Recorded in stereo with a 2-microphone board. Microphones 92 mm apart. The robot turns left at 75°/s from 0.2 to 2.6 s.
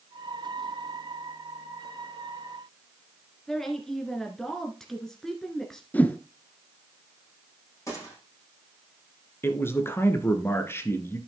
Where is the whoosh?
15° left (ahead or behind), 0.9 m.